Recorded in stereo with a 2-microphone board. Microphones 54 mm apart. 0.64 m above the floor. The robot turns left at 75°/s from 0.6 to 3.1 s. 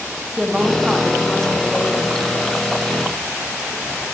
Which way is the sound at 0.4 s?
15° right (ahead or behind).